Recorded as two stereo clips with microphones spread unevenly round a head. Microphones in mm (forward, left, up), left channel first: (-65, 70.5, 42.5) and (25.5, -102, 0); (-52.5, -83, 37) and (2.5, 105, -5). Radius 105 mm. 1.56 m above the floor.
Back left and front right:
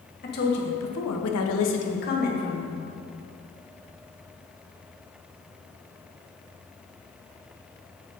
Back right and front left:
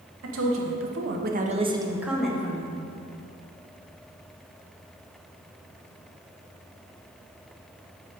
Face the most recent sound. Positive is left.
turn(degrees=175)